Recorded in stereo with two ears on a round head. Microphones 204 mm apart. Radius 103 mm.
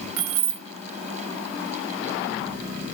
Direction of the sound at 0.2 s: 60° right (ahead or behind).